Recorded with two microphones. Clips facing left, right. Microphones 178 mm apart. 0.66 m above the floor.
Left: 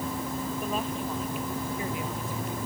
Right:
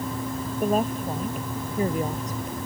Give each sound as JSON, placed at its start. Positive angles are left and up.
{"t": 0.6, "sound": "a woman speaking", "side_deg": -45}